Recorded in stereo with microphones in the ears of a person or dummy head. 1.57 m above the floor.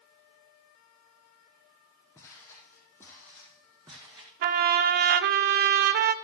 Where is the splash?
No splash in this recording.